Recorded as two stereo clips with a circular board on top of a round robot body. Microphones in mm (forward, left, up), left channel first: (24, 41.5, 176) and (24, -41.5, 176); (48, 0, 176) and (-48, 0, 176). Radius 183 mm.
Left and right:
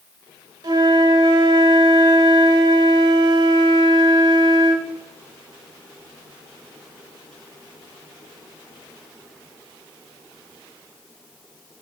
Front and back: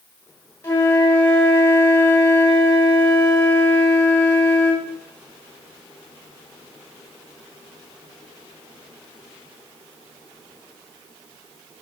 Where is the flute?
65° right, 2.0 m.